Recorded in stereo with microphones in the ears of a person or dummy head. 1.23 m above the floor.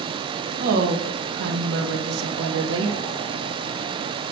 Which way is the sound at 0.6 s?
50° right (ahead or behind).